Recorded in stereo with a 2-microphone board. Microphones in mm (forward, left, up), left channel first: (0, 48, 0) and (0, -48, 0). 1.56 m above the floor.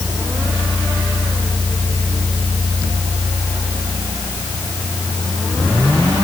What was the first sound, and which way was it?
Only background noise.